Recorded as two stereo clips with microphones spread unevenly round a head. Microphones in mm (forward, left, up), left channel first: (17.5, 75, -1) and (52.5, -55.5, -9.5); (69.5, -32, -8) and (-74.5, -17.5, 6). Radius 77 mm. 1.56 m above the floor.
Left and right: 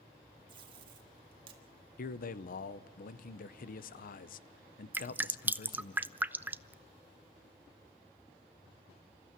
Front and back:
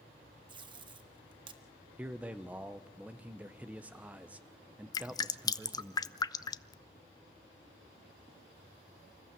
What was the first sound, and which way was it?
Tape being pulled, 135° right.